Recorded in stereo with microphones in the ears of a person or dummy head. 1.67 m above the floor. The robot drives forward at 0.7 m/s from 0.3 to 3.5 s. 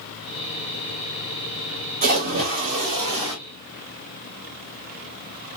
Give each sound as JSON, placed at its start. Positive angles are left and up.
{"t": 2.0, "sound": "a splash", "side_deg": -45, "distance_m": 2.0}